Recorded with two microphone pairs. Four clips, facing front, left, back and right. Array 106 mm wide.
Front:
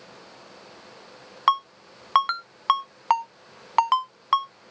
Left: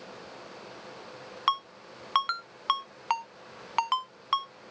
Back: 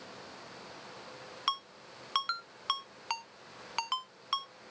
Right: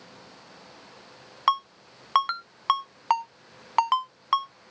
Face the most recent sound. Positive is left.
turn(degrees=-20)